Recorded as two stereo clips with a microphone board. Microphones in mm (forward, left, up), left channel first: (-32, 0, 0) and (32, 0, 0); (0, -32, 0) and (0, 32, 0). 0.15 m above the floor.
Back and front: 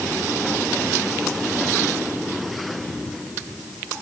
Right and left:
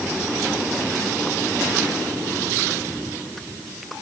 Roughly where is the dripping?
I don't hear dripping.